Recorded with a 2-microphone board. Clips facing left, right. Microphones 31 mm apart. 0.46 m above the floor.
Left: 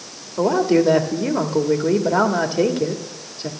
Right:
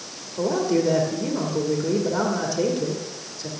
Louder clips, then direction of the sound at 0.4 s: Left 5 dB; 40° left (ahead or behind).